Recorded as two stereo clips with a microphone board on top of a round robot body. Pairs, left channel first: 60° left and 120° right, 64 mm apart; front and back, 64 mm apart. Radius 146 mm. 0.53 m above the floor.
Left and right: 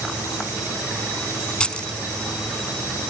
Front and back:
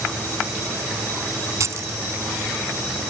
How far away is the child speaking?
No child speaking in this recording.